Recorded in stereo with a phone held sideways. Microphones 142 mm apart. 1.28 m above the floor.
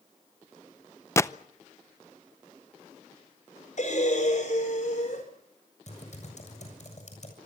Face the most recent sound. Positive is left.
turn(degrees=55)  # may be behind; listen again after turning